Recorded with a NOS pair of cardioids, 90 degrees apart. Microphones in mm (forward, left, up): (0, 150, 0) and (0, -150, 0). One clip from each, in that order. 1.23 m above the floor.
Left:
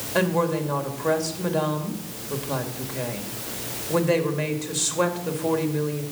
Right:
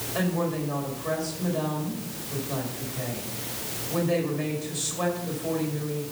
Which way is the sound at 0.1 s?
45° left.